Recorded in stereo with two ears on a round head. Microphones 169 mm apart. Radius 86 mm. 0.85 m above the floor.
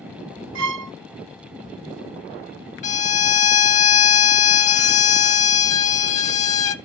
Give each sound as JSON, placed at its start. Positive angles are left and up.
{"t": 0.6, "sound": "a violin", "side_deg": -75, "distance_m": 1.0}
{"t": 2.8, "sound": "a violin", "side_deg": 40, "distance_m": 0.8}